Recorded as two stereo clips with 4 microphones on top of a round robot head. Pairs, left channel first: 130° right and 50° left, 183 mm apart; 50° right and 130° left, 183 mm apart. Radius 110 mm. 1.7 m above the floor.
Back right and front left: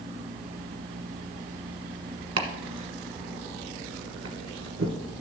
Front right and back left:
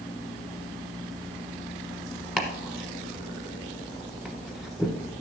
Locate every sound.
2.4 s chopping: 35° left, 1.2 m